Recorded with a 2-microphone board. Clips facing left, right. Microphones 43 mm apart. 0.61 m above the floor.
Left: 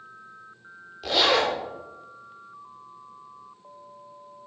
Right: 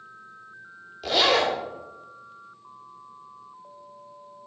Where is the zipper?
Centre (ahead or behind), 1.5 m.